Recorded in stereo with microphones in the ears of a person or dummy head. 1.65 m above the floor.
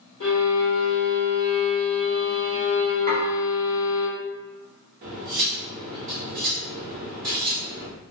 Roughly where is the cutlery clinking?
Right.